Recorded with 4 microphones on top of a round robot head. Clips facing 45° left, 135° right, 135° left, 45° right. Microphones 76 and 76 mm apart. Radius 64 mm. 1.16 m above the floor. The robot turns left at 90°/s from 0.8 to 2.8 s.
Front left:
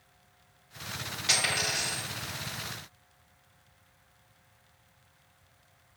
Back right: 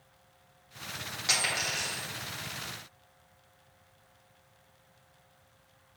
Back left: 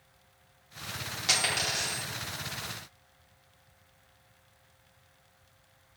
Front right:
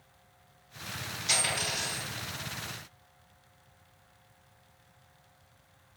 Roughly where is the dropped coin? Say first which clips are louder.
Front left 1 dB, back left 1 dB; behind.